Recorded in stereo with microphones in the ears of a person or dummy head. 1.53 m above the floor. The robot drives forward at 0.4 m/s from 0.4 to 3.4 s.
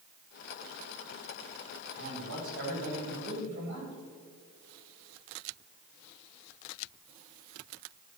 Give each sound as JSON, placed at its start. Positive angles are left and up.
{"t": 1.9, "sound": "a man speaking", "side_deg": -70, "distance_m": 4.0}